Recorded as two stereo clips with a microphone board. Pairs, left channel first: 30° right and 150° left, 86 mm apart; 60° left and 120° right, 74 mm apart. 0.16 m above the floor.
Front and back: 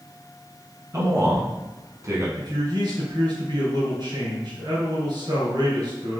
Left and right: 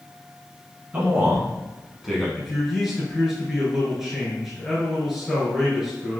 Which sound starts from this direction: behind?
A man speaking, at 0.9 s.